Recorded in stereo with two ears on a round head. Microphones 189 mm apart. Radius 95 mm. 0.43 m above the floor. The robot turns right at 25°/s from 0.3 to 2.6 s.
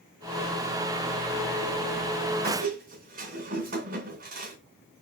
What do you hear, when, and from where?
2.4 s a squeak: 45° right (ahead or behind), 2.5 m; by 4.6 s 40° right (ahead or behind), 2.5 m